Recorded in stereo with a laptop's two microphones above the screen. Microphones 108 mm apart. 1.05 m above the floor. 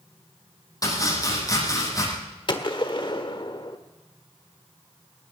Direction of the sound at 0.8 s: 35° left (ahead or behind).